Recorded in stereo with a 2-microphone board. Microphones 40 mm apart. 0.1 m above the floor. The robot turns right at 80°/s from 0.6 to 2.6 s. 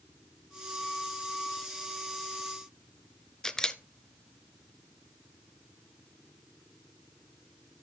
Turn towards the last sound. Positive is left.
turn(degrees=15)  # may be behind; listen again after turning